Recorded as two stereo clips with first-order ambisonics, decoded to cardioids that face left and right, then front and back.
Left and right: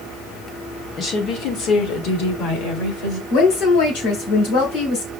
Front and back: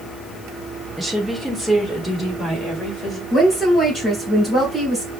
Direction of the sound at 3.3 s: 90° left.